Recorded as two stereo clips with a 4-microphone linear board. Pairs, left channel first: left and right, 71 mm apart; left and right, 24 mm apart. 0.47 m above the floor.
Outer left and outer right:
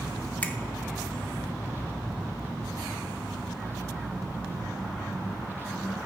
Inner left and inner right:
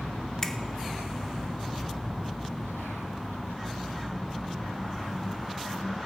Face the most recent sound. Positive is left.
turn(degrees=25)  # may be behind; listen again after turning